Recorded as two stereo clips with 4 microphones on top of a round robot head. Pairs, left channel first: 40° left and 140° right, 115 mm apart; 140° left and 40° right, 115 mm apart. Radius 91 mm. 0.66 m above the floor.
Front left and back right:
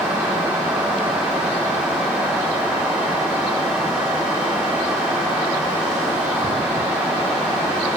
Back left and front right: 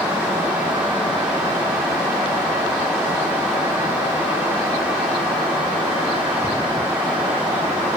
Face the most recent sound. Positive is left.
No sound to turn to.